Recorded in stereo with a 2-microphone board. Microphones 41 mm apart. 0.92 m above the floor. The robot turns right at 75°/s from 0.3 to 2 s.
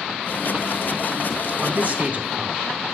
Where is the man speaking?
30° right (ahead or behind), 0.9 m; by 2.9 s 35° right (ahead or behind), 0.9 m.